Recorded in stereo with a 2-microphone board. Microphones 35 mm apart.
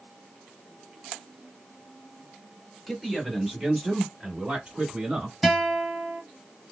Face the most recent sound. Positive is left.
turn(degrees=0)  # may be behind; listen again after turning